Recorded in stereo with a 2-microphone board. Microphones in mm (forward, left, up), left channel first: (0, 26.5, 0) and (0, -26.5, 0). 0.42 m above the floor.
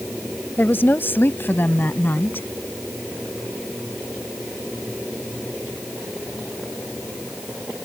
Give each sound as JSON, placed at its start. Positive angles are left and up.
{"t": 0.6, "sound": "a woman speaking", "side_deg": 45}